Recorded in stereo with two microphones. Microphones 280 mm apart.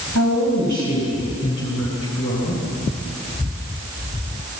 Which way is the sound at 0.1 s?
90° left.